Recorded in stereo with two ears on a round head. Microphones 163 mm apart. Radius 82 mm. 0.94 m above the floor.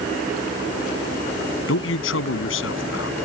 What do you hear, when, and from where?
1.7 s a man speaking: 75° left (ahead or behind)